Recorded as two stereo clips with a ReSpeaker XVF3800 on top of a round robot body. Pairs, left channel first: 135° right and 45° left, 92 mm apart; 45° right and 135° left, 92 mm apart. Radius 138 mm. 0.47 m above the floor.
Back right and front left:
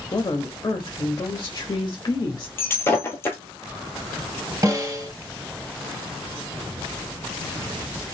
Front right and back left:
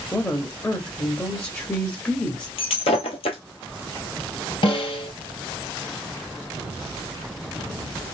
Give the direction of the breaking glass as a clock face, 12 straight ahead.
2 o'clock.